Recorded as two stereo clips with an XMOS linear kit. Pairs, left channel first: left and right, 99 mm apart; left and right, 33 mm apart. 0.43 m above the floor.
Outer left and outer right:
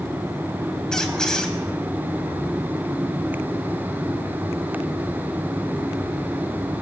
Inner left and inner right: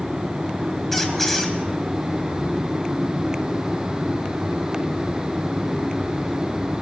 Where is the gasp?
I don't hear a gasp.